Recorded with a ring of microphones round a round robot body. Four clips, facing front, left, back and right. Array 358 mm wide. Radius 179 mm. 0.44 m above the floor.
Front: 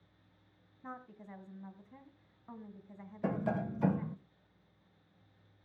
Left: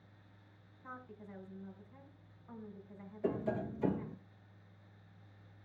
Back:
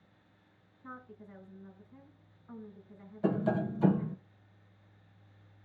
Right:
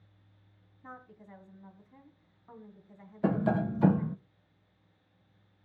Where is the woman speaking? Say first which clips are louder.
Right 1 dB, front 1 dB; 20° right, 3.5 m.